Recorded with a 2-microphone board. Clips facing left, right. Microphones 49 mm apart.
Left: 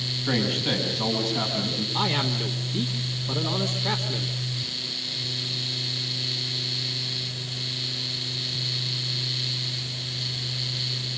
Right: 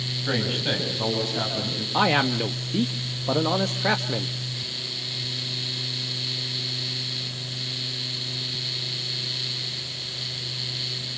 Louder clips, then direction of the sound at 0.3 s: Left 1 dB; 15° right (ahead or behind).